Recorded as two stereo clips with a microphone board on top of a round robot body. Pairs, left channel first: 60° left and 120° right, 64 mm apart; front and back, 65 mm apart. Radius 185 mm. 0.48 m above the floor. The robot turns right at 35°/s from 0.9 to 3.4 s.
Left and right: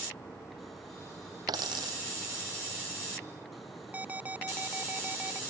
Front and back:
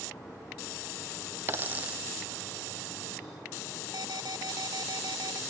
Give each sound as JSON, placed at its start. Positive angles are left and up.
{"t": 1.5, "sound": "a dropped coin", "azimuth_deg": -125}
{"t": 3.9, "sound": "an alarm", "azimuth_deg": 175}